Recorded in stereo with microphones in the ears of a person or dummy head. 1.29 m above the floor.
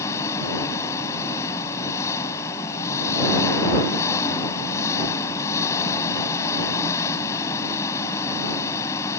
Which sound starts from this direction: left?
An engine running, at 0.0 s.